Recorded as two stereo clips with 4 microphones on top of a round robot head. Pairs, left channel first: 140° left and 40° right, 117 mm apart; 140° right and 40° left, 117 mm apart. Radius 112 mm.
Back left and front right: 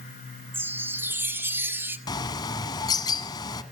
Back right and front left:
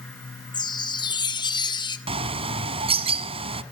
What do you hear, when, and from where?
0.5 s a chime: 105° right, 1.8 m
2.1 s a bird: 80° left, 1.0 m